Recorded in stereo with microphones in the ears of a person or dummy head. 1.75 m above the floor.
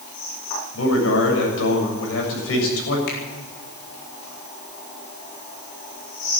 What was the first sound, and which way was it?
A man speaking, 85° left.